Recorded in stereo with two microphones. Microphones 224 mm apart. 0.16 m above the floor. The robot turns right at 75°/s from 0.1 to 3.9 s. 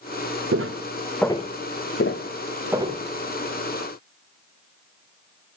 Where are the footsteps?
85° right, 1.0 m; by 3.0 s 35° right (ahead or behind), 1.5 m.